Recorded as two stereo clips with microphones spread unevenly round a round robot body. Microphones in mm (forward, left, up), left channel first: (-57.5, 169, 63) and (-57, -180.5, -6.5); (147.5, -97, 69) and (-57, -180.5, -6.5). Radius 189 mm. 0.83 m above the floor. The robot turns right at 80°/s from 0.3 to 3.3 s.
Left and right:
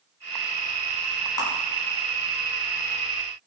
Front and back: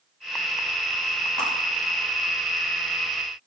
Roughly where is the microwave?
No microwave in this recording.